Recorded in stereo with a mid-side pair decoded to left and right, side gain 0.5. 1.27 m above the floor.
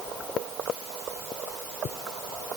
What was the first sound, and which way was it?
Only background noise.